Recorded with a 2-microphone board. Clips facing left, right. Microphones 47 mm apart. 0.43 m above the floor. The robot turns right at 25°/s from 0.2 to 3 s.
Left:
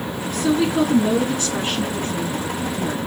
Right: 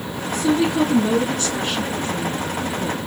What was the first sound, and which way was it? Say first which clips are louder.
A woman speaking: even; 5° right.